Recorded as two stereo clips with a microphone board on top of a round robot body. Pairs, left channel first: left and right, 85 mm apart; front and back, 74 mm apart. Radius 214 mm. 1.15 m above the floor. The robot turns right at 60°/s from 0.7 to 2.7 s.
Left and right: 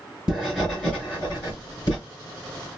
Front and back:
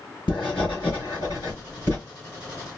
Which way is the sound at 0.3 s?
5° right.